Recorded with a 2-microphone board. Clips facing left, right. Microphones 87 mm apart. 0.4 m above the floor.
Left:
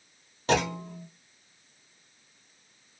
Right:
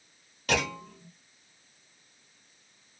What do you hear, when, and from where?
0.5 s a clunk: 30° left (ahead or behind), 1.0 m